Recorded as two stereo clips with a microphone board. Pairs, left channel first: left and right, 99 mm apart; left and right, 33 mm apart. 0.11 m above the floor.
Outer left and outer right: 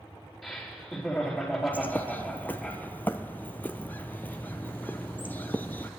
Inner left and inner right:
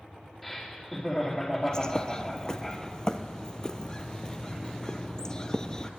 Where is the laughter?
Centre (ahead or behind), 4 m.